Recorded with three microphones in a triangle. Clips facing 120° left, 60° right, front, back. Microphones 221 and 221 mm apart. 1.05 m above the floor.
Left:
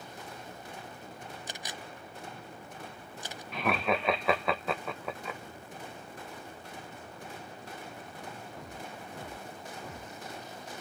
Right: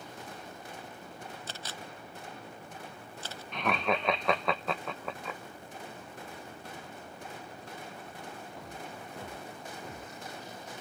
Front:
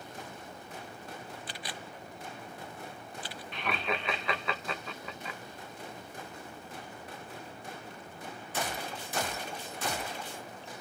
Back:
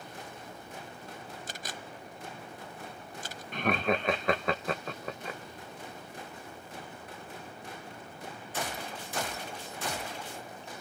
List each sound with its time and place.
1.5 s a camera shutter: 170° right, 0.7 m
3.5 s laughter: 155° right, 1.2 m